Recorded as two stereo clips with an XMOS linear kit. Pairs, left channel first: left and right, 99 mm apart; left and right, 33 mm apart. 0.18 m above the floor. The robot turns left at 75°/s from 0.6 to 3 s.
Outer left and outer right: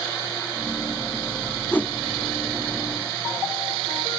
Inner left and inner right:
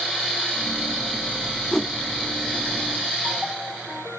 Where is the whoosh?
15° left (ahead or behind), 0.7 m; by 1.9 s 10° left (ahead or behind), 0.7 m.